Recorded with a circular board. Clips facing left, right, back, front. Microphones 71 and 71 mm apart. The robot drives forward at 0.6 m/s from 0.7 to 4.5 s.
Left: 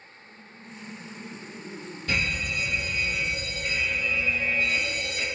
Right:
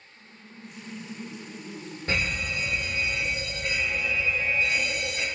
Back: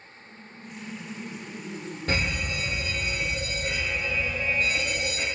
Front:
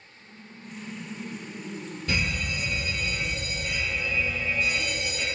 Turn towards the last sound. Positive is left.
turn(degrees=-150)